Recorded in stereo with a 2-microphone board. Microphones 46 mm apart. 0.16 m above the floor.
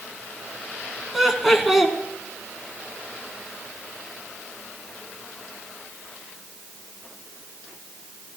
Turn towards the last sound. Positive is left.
turn(degrees=-5)  # may be behind; listen again after turning